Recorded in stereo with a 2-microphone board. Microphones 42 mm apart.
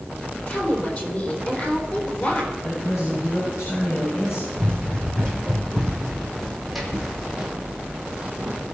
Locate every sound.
0.5 s a woman speaking: 45° left (ahead or behind), 3.5 m
2.6 s a man speaking: 85° left, 7 m
4.6 s running footsteps: 25° left (ahead or behind), 3 m; by 8.6 s 30° right (ahead or behind), 2 m